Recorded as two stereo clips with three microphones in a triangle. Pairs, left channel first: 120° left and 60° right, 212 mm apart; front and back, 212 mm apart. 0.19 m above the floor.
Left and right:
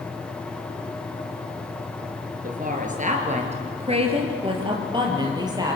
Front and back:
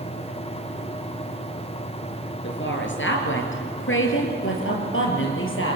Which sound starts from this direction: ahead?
A woman speaking, at 2.4 s.